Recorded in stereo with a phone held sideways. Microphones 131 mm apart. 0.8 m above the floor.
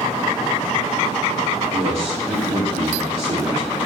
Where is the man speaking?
50° right (ahead or behind), 1.9 m.